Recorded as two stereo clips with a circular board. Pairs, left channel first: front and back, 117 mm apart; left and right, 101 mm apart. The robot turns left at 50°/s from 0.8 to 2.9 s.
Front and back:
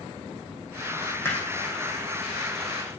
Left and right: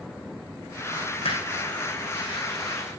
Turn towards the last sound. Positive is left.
turn(degrees=-10)